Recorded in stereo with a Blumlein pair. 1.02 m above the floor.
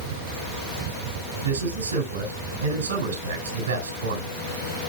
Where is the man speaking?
65° right, 4 m.